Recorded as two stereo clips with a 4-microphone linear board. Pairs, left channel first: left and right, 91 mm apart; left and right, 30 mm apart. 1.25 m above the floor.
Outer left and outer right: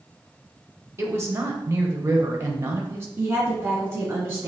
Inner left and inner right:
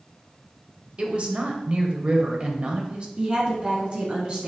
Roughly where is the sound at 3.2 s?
Right.